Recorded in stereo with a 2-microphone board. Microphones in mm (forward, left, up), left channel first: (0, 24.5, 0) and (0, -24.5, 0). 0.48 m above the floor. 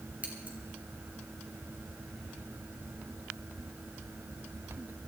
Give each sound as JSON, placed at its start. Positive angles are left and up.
{"t": 0.2, "sound": "scissors", "side_deg": -35, "distance_m": 2.5}